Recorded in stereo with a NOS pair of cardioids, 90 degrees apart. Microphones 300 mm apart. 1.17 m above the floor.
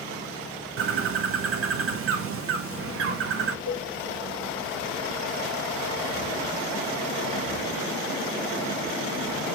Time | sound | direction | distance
0.8 | a bird | 45° right | 0.5 m
3.7 | a cowbell | 65° right | 1.1 m